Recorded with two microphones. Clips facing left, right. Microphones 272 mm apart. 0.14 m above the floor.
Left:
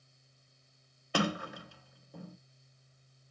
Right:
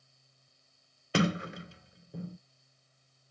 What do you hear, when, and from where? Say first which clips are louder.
1.1 s a sliding door: right 3 dB; 25° right (ahead or behind), 0.6 m